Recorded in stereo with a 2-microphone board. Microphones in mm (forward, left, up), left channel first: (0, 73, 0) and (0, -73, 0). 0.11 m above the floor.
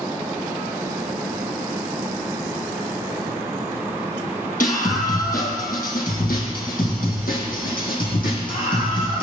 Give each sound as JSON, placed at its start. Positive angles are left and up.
{"t": 4.6, "sound": "a scream", "side_deg": 65, "distance_m": 3.5}